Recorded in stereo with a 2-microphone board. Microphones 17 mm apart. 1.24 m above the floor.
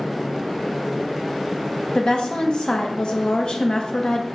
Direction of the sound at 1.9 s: 70° left (ahead or behind).